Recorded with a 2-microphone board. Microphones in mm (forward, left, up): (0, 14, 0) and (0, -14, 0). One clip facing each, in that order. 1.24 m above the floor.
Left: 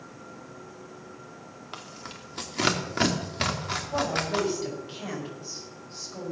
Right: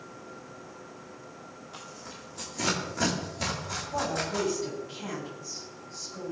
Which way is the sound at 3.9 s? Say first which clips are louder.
Left 3 dB; 40° left (ahead or behind).